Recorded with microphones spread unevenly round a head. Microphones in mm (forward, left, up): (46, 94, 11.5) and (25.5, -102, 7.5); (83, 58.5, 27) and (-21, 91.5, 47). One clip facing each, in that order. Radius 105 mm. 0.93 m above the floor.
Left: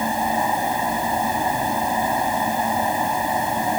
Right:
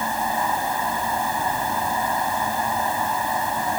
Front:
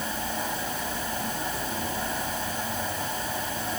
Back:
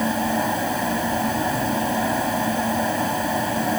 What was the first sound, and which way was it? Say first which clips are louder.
A fan: left 3 dB, back 10 dB; 160° left.